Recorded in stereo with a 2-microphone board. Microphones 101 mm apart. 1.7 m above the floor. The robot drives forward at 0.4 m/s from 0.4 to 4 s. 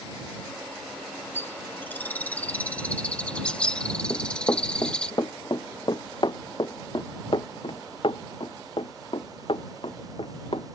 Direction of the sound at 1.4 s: 25° left (ahead or behind).